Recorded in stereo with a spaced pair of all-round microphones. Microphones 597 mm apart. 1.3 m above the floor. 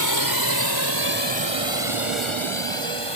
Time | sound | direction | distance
0.0 | a drone | 30° left (ahead or behind) | ?